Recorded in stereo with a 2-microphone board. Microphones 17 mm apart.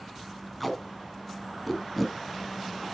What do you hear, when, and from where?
0.6 s tape being pulled: centre (ahead or behind), 1.0 m